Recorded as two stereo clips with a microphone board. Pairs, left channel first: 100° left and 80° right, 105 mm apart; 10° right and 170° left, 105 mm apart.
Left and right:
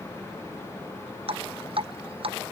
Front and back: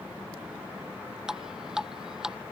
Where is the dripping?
105° right.